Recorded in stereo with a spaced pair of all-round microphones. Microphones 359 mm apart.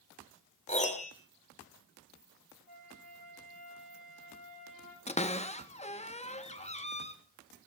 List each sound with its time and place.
0.7 s a piano: 20° left (ahead or behind), 2 m
2.7 s a flute: 70° right (ahead or behind), 9 m
5.1 s a cupboard door: 15° left (ahead or behind), 1.1 m